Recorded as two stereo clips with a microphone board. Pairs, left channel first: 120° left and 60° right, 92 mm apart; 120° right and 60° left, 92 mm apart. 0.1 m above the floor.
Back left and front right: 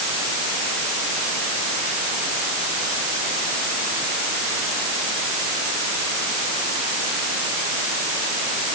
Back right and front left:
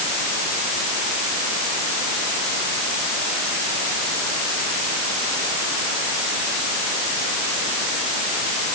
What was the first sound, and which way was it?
Only background noise.